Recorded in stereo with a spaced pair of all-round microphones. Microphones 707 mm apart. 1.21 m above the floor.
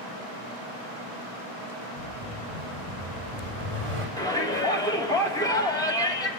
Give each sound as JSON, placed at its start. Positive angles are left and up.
{"t": 2.0, "sound": "an explosion", "side_deg": -50, "distance_m": 6.5}
{"t": 4.2, "sound": "a shout", "side_deg": 5, "distance_m": 3.5}